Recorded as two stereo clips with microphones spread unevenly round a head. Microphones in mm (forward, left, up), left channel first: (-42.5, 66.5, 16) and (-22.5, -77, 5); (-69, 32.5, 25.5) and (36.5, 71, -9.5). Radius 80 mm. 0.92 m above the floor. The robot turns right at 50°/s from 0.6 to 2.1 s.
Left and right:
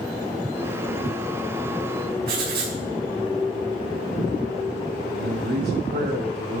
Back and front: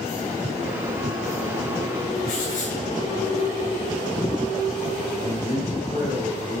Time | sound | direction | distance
2.3 | writing | 100° right | 4.5 m
5.2 | a man speaking | 100° right | 3.5 m